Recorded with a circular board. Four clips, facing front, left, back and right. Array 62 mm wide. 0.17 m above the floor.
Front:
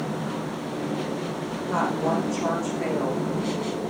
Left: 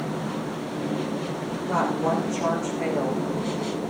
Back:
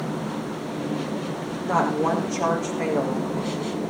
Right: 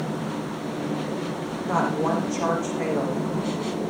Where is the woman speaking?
150° right, 9 m.